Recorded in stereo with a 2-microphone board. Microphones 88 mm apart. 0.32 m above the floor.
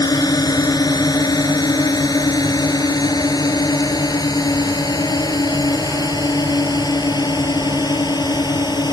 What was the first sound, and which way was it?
A drone, 50° left (ahead or behind).